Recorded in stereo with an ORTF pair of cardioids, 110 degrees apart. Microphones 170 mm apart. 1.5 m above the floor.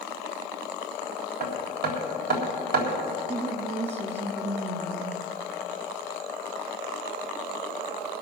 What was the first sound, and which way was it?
Hammering, 65° right.